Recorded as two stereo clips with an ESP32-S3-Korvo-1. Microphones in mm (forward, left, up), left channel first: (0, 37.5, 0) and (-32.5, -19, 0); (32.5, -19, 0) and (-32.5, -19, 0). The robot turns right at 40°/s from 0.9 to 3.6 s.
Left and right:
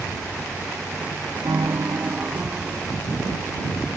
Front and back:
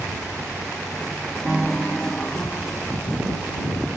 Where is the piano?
95° right; by 2.9 s 40° right.